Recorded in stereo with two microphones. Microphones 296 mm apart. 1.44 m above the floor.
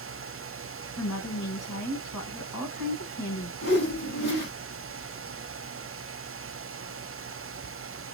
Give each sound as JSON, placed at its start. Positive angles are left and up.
{"t": 1.0, "sound": "a woman speaking", "side_deg": 80, "distance_m": 2.0}
{"t": 3.6, "sound": "a whoosh", "side_deg": 50, "distance_m": 3.0}